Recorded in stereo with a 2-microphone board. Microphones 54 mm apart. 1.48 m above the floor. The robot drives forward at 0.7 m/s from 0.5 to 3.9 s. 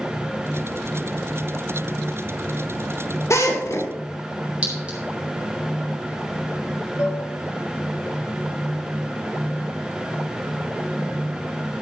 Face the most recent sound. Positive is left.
turn(degrees=70)  # may be behind; listen again after turning